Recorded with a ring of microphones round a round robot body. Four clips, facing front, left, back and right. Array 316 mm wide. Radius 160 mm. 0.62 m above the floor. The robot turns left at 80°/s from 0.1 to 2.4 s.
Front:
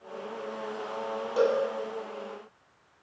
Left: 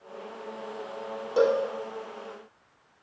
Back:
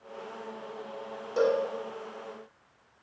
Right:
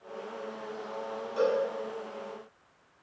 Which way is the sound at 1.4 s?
100° left.